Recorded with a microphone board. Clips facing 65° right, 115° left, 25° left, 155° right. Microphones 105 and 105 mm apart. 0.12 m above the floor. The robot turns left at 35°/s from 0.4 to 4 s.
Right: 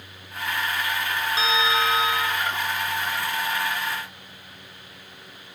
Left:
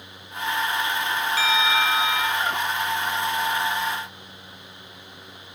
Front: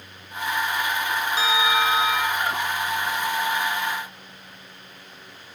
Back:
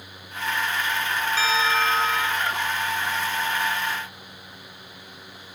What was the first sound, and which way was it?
A bell, 30° right.